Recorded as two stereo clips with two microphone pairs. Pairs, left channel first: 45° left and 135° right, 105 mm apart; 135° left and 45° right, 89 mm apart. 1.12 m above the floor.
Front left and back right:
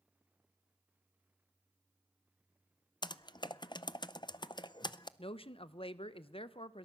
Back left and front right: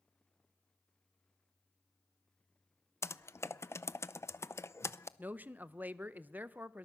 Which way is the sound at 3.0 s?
80° left.